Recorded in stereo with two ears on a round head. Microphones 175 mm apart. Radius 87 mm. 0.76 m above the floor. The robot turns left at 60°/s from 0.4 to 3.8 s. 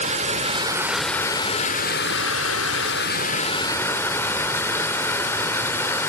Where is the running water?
145° right, 0.8 m; by 6.1 s 15° left, 0.8 m.